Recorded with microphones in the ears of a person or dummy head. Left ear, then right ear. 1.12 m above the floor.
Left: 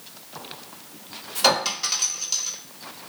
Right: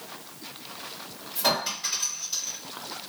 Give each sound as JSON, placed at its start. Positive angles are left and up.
{"t": 1.4, "sound": "a clink", "side_deg": 70, "distance_m": 1.2}